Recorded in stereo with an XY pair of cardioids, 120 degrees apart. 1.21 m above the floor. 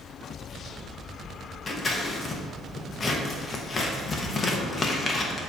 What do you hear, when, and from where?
1.7 s scissors: 25° left, 1.2 m